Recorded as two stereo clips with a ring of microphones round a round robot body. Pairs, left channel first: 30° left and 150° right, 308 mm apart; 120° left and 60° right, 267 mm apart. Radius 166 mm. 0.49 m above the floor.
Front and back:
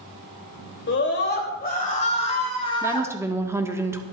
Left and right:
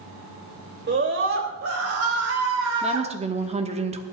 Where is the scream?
20° right, 3 m; by 3.8 s 50° right, 5.5 m.